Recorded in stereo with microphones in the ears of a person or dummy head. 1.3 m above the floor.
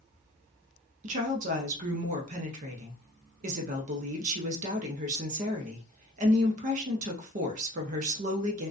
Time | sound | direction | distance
1.0 | a woman speaking | 40° right (ahead or behind) | 0.5 m